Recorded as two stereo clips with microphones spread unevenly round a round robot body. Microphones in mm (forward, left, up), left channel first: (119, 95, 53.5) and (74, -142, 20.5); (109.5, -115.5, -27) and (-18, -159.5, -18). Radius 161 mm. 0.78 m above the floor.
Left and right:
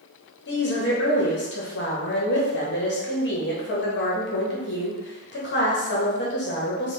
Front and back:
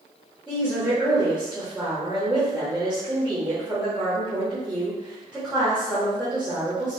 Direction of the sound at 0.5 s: 110° left.